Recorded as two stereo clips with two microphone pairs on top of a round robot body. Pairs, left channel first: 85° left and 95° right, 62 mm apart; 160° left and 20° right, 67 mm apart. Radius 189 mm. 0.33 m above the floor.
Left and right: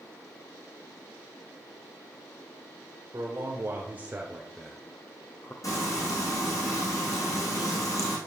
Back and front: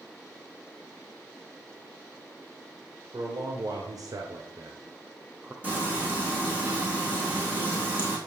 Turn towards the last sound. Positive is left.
turn(degrees=45)